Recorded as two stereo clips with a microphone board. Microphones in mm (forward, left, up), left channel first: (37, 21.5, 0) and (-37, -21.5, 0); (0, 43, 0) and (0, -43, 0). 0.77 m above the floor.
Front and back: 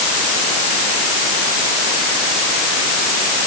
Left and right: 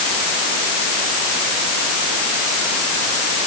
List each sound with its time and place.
Only background noise.